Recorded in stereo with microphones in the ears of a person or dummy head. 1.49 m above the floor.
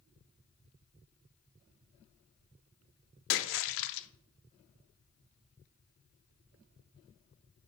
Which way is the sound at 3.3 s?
65° left (ahead or behind).